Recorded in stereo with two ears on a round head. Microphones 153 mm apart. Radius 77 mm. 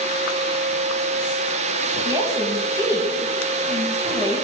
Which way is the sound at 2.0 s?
25° right (ahead or behind).